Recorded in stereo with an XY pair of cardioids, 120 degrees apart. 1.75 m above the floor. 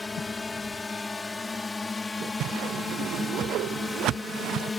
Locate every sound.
0.0 s a drone: 20° left
2.4 s a whoosh: 70° right